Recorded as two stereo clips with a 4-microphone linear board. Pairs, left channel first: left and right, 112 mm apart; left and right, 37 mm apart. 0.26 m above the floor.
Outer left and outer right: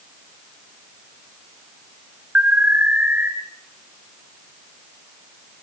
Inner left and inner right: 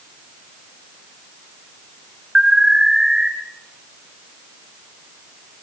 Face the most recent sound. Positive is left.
turn(degrees=-15)  # may be behind; listen again after turning